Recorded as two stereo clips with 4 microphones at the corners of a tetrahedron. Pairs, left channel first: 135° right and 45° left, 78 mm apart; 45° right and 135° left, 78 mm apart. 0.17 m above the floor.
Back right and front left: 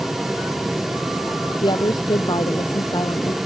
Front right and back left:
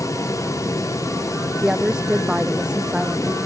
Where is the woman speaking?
145° right.